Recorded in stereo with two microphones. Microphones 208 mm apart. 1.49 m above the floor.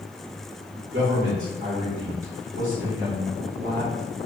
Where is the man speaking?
80° right, 1.7 m.